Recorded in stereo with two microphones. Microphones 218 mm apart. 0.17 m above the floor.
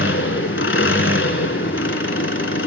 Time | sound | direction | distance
0.0 | an engine running | 60° left (ahead or behind) | 0.8 m